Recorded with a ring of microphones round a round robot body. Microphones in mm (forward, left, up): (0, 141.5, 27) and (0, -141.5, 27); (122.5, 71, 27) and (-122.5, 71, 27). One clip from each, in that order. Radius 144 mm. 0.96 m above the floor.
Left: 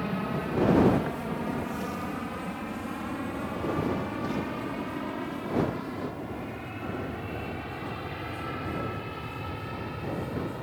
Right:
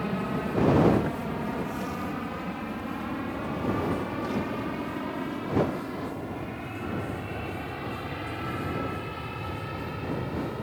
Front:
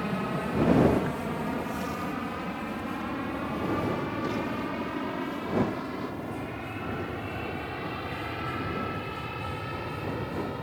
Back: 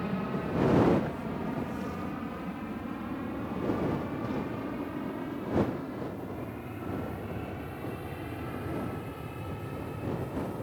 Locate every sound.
0.0 s an aircraft: 10° left; by 10.6 s straight ahead